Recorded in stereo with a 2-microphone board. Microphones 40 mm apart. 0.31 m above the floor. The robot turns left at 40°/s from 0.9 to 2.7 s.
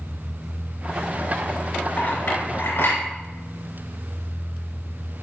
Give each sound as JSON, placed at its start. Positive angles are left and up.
{"t": 2.0, "sound": "a clink", "side_deg": 40, "distance_m": 3.5}